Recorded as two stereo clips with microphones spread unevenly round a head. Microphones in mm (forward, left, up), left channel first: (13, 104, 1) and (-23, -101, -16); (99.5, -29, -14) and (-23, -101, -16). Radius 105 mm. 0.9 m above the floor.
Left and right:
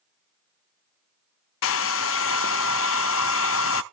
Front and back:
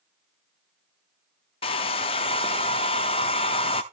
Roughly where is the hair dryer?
Left.